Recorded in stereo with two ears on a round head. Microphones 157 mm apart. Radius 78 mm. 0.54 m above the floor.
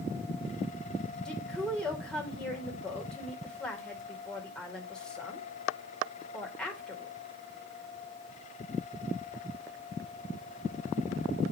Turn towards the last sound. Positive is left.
turn(degrees=5)  # may be behind; listen again after turning